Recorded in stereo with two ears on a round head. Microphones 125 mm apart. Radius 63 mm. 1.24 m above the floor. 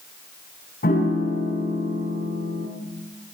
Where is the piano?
70° left (ahead or behind), 6.5 m.